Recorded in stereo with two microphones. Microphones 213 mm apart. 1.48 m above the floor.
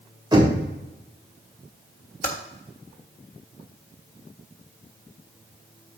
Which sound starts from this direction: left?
Typing on a keyboard, at 2.2 s.